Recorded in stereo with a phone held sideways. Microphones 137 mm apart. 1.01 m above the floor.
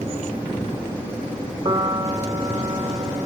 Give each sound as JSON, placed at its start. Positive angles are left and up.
{"t": 1.6, "sound": "a piano", "side_deg": -35}